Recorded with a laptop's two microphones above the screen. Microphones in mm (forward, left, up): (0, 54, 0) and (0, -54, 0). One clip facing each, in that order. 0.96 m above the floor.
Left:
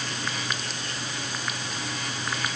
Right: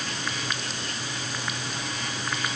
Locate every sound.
Only background noise.